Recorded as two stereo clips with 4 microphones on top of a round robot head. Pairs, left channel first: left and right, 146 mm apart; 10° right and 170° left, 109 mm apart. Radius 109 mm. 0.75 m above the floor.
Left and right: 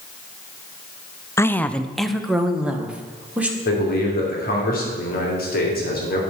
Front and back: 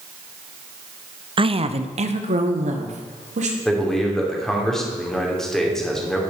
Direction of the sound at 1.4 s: 155° left.